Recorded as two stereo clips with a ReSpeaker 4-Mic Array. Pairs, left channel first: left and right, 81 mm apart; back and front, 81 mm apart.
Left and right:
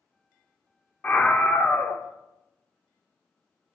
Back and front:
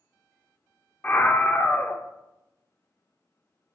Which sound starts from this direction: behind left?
A scream, at 1.0 s.